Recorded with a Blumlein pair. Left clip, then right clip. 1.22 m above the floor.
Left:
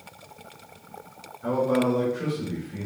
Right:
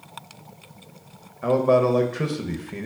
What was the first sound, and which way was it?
A man speaking, 55° right.